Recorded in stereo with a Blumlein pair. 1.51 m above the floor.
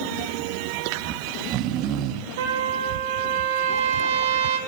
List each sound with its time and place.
1.0 s snoring: 35° right, 0.7 m
2.4 s a trumpet: 55° right, 1.2 m